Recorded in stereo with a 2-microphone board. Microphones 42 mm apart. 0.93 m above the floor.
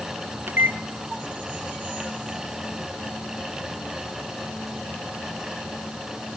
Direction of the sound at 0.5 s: 65° right (ahead or behind).